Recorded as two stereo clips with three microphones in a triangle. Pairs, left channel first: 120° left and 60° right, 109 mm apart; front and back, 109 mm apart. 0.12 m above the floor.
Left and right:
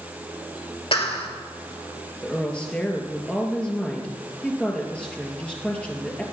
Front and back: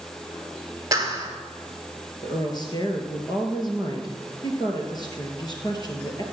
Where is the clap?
130° left, 2 m.